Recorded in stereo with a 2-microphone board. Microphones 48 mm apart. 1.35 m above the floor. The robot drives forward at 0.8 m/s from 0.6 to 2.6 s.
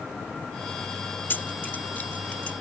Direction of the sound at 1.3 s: 40° left (ahead or behind).